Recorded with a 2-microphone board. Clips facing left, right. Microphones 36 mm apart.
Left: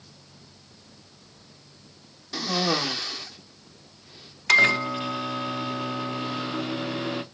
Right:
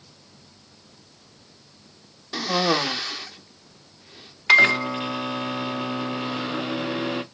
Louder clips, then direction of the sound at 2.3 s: Right 3 dB; 20° right (ahead or behind).